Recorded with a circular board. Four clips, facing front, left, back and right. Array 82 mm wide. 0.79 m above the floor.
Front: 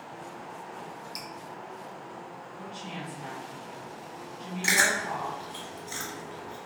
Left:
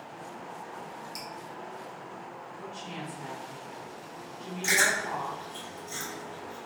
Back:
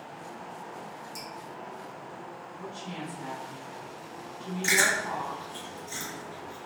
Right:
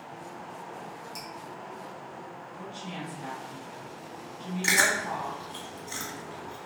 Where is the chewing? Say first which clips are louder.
Right 1 dB, even; 50° right, 1.1 m.